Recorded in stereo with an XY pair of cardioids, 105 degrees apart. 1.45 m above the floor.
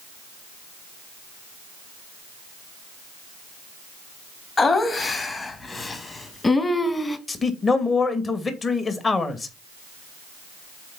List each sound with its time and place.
4.6 s laughter: 35° left, 3 m; by 7.2 s 20° left, 2 m
7.3 s a man speaking: 35° left, 2 m